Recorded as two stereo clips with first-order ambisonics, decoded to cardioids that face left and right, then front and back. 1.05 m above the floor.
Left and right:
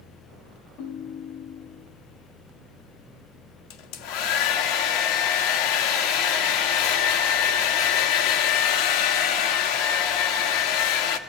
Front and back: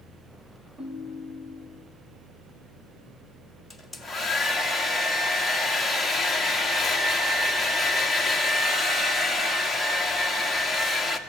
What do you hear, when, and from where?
0.8 s a ringtone: 105° left, 1.8 m
3.7 s a hair dryer: 85° left, 1.8 m